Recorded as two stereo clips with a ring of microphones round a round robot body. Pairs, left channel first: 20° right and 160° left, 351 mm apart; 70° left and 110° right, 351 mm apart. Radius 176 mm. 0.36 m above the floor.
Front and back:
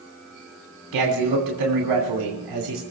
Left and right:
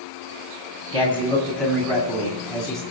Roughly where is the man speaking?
Behind left.